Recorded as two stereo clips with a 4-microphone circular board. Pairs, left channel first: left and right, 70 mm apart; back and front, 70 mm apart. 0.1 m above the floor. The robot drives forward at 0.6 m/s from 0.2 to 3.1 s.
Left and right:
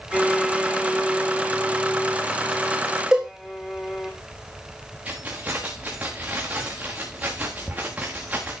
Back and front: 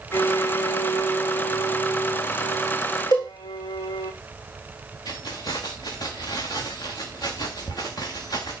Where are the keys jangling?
160° right, 6.5 m.